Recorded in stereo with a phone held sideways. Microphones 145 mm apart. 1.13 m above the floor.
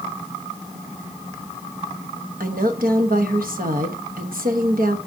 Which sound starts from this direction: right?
A woman speaking, at 2.4 s.